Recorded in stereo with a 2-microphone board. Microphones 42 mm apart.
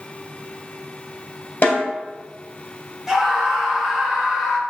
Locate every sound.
1.6 s a snare drum: 40° left (ahead or behind), 2 m
3.1 s a scream: 10° right (ahead or behind), 1.7 m